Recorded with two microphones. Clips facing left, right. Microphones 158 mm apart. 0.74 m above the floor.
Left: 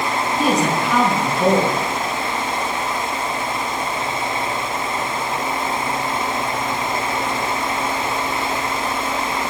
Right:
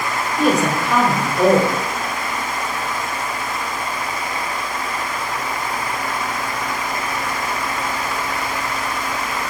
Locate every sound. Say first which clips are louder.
0.4 s a woman speaking: right 2 dB; 60° right (ahead or behind), 3 m